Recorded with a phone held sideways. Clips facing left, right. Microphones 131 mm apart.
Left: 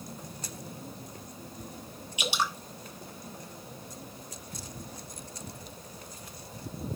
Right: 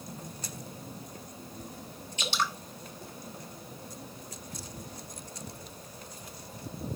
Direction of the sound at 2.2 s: 10° left (ahead or behind).